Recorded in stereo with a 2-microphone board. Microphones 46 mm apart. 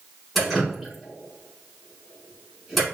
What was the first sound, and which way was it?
Dripping, centre (ahead or behind).